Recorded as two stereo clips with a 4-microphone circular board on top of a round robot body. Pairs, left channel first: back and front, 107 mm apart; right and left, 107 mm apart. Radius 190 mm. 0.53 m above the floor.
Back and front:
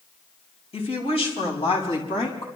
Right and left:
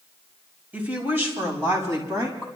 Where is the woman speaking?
165° left, 5 m; by 2.5 s 145° left, 5.5 m.